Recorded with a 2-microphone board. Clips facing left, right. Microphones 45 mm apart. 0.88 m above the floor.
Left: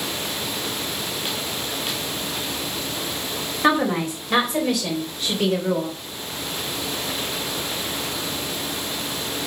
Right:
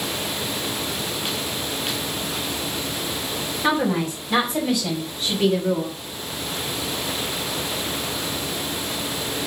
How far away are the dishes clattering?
I don't hear dishes clattering.